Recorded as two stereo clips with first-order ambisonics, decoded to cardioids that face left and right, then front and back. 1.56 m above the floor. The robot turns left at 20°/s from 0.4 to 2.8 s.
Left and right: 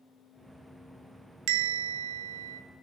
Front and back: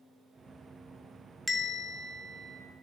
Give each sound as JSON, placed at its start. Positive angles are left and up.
{"t": 1.5, "sound": "a bell", "azimuth_deg": -80, "distance_m": 0.7}